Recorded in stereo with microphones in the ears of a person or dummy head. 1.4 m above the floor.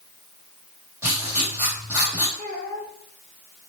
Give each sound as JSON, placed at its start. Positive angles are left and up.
{"t": 1.0, "sound": "writing", "side_deg": -25, "distance_m": 1.6}
{"t": 2.4, "sound": "a child speaking", "side_deg": -55, "distance_m": 1.6}